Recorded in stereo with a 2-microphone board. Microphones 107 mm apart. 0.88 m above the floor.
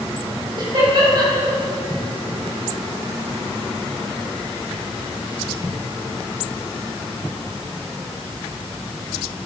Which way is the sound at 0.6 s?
45° right (ahead or behind).